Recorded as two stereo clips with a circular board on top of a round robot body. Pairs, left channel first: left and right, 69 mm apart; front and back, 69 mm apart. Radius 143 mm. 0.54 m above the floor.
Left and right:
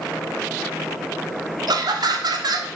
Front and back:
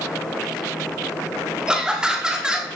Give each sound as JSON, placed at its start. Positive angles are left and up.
{"t": 1.7, "sound": "laughter", "azimuth_deg": -100, "distance_m": 1.8}